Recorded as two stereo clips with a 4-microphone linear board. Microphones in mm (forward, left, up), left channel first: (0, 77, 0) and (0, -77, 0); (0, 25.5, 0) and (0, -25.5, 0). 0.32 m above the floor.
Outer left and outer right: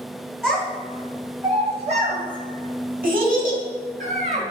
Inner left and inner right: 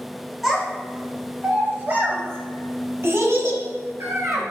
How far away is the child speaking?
About 1.1 m.